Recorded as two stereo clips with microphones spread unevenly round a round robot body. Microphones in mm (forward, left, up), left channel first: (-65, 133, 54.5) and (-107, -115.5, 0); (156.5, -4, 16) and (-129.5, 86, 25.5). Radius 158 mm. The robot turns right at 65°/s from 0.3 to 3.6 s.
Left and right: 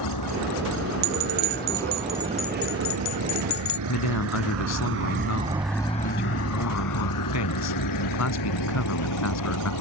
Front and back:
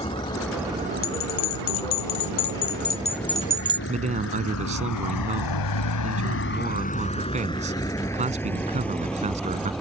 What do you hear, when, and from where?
0.0 s a vehicle: 55° left; by 9.8 s 70° left
1.0 s a bell: 80° right; by 3.8 s 85° left
3.9 s a man speaking: 95° left